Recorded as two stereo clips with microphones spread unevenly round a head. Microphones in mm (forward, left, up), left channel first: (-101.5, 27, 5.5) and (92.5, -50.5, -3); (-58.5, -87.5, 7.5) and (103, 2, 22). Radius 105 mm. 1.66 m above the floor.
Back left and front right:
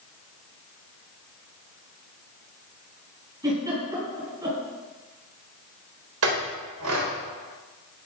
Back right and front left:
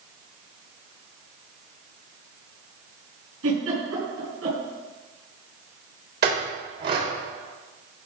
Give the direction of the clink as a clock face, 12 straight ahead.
12 o'clock.